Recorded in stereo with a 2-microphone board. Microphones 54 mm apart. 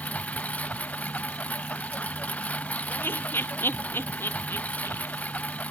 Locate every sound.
0.0 s a lawn mower: 25° left (ahead or behind)
2.9 s laughter: 40° left (ahead or behind)